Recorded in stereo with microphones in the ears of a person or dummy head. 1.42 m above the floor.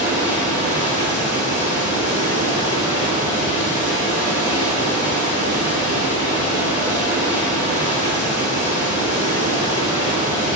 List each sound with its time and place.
0.0 s running water: 40° left (ahead or behind), 2.5 m